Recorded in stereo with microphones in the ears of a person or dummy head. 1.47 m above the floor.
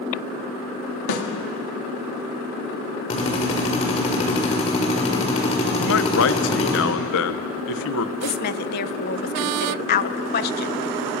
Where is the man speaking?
70° left (ahead or behind), 1.0 m.